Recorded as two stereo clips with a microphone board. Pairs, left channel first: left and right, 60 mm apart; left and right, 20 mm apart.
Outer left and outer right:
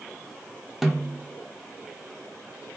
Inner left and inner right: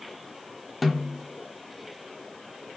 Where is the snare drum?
5° right (ahead or behind), 0.5 m.